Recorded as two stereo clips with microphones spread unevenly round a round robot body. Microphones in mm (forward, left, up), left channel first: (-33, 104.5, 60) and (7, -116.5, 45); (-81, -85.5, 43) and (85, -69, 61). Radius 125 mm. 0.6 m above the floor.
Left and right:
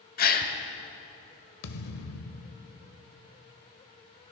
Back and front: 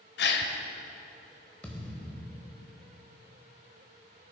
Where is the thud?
100° left, 0.9 m.